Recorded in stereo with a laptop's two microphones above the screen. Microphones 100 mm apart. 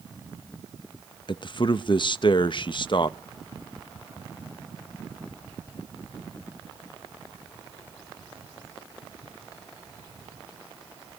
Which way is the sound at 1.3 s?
50° left (ahead or behind).